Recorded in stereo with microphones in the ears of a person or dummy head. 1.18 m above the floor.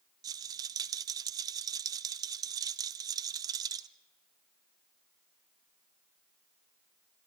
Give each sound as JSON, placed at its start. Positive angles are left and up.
{"t": 0.2, "sound": "a rattle", "side_deg": -20, "distance_m": 0.6}